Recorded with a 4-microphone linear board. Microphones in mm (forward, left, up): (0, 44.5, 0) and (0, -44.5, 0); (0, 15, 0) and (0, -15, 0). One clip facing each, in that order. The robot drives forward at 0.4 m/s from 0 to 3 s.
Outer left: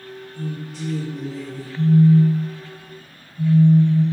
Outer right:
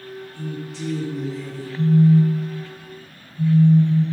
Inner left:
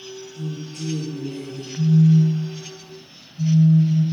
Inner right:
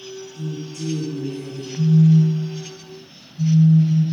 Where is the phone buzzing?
15° left (ahead or behind), 1.5 m; by 4.0 s 10° left (ahead or behind), 2.0 m.